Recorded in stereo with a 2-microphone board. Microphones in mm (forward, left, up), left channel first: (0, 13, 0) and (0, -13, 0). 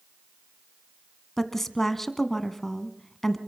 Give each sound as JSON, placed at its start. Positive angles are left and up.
{"t": 1.4, "sound": "a woman speaking", "side_deg": 10, "distance_m": 1.8}